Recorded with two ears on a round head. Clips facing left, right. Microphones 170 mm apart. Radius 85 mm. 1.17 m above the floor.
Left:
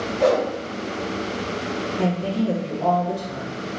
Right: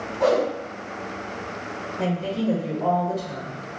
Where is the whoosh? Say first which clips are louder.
Left 1 dB; 35° left (ahead or behind), 1.5 m.